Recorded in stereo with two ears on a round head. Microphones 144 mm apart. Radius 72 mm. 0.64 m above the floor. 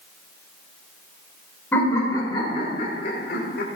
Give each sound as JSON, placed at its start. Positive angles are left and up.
{"t": 1.7, "sound": "laughter", "side_deg": 15, "distance_m": 3.0}